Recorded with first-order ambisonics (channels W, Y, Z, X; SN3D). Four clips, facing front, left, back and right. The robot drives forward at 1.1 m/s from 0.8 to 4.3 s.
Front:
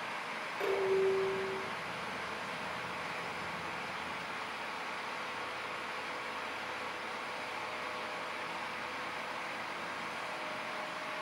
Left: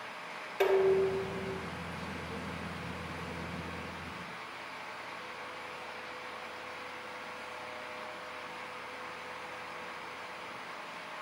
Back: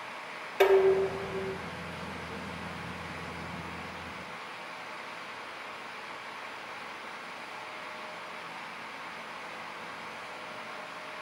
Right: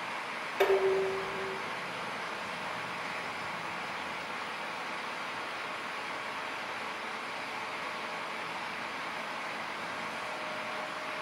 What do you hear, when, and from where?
0.6 s dishes clattering: 175° right, 2 m